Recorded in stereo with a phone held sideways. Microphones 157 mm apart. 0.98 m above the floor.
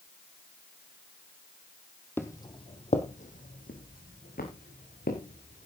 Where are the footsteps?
15° left (ahead or behind), 1.4 m; by 5.7 s 80° left, 4.5 m.